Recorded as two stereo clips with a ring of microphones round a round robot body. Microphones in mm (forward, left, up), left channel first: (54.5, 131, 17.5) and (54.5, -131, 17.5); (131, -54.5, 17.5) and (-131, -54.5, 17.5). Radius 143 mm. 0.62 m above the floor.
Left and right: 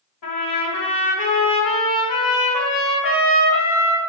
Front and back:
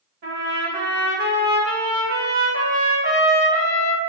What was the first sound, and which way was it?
A trumpet, 120° left.